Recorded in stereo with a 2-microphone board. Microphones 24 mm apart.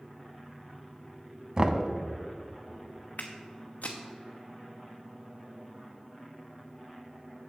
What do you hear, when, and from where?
1.6 s knocking: 30° right (ahead or behind), 0.7 m
3.2 s footsteps: 75° left (ahead or behind), 1.2 m